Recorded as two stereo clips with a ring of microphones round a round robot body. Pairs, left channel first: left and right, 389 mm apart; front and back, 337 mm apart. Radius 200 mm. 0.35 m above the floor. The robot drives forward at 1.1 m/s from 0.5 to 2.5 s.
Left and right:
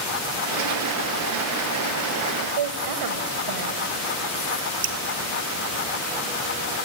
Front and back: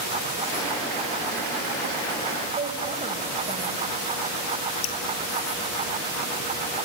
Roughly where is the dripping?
Ahead right.